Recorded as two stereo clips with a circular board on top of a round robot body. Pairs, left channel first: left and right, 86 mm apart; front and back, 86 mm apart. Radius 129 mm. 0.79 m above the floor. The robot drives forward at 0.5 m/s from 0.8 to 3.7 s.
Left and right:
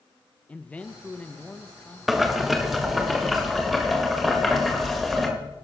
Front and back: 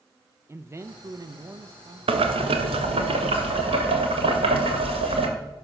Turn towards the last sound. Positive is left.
turn(degrees=180)